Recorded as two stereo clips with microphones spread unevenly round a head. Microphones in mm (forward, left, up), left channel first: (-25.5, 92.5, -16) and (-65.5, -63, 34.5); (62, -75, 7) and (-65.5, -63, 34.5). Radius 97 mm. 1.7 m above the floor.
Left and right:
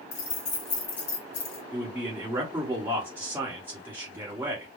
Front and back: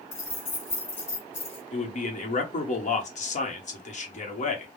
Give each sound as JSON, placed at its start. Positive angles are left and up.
{"t": 0.1, "sound": "keys jangling", "azimuth_deg": 45, "distance_m": 1.0}
{"t": 1.7, "sound": "a man speaking", "azimuth_deg": -35, "distance_m": 1.1}